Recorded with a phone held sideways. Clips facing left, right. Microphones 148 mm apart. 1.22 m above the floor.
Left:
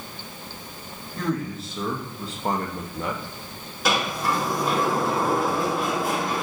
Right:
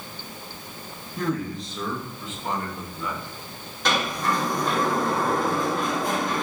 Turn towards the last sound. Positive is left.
turn(degrees=10)  # may be behind; listen again after turning